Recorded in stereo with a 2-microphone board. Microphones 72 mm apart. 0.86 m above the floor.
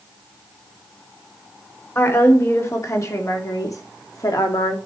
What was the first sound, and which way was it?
A woman speaking, 35° left (ahead or behind).